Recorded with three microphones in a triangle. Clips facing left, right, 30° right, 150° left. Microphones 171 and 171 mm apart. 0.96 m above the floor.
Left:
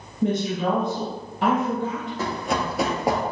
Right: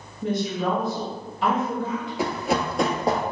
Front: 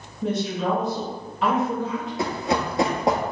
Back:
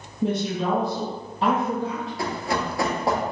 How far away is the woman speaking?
About 1.2 m.